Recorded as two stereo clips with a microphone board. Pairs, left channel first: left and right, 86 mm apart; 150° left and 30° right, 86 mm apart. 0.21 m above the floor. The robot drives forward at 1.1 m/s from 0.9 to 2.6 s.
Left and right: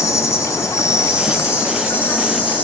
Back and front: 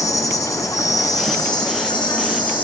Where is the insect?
130° left, 2.5 m; by 2.6 s 155° left, 3.5 m.